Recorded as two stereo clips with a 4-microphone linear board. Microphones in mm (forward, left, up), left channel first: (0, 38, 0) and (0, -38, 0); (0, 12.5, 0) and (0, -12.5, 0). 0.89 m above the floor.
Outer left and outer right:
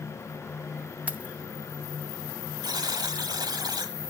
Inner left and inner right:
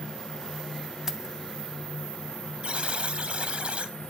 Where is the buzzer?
60° right (ahead or behind), 1.4 m.